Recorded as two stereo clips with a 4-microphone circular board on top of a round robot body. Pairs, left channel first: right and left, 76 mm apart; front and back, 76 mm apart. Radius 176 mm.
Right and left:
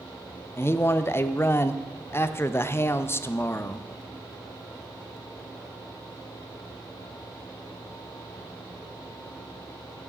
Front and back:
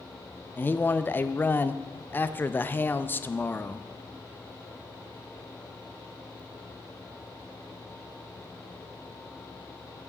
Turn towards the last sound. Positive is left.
turn(degrees=-50)